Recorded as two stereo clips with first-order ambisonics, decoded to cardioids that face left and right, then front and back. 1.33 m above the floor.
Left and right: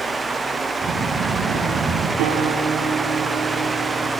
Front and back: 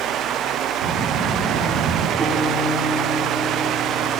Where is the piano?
115° right, 8 m.